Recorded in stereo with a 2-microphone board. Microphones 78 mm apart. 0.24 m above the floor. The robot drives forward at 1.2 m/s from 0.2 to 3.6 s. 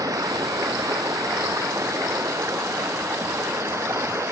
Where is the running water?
55° right (ahead or behind); by 4.3 s 40° right (ahead or behind).